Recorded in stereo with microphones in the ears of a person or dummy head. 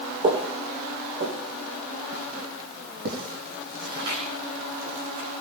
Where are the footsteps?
35° right (ahead or behind), 3 m; by 5.3 s 65° right (ahead or behind), 8.5 m.